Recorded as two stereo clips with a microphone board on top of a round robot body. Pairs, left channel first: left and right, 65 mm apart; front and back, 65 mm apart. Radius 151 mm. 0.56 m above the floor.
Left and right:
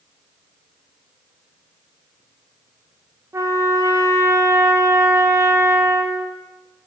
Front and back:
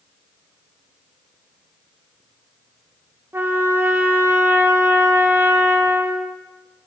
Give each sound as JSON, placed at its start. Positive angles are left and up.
{"t": 3.3, "sound": "a trumpet", "azimuth_deg": -130, "distance_m": 1.3}